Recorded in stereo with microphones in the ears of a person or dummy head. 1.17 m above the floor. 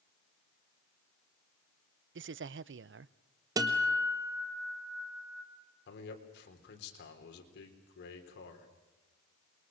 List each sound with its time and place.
2.1 s a man speaking: 55° right (ahead or behind), 0.5 m
3.6 s a guitar: 20° right (ahead or behind), 1.5 m
5.9 s a man speaking: 70° left (ahead or behind), 3.5 m